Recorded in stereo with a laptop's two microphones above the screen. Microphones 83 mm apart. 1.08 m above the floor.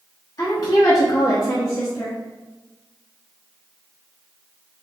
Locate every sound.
0.4 s a woman speaking: 40° left (ahead or behind), 1.1 m; by 2.2 s 30° left (ahead or behind), 0.9 m